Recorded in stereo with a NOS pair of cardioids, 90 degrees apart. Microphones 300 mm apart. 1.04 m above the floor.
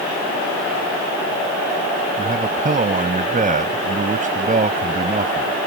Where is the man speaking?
25° right.